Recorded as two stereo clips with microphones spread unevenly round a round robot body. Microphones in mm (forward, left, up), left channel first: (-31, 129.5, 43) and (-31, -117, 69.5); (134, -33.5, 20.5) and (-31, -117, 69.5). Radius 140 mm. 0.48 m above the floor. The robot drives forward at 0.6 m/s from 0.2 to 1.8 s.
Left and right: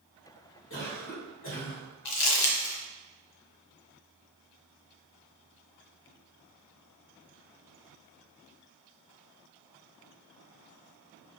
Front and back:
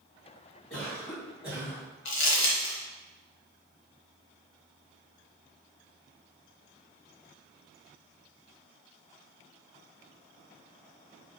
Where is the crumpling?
85° left, 1.2 m.